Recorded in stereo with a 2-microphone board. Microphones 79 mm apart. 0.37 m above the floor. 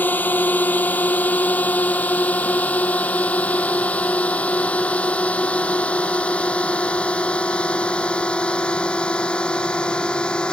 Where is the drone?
25° left (ahead or behind); by 10.5 s 10° left (ahead or behind).